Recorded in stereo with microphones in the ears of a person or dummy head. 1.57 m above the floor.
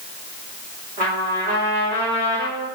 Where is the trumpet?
50° right (ahead or behind), 2.5 m.